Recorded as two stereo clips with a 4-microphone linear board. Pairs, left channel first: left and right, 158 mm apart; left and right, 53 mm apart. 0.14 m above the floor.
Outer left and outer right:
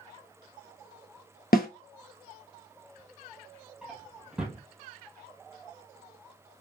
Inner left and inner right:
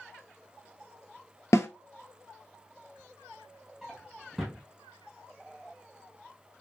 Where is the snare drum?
70° left (ahead or behind), 0.7 m.